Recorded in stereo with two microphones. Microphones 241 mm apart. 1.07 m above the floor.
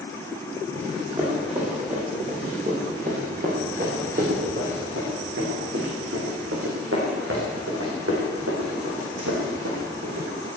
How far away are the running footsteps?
About 6 m.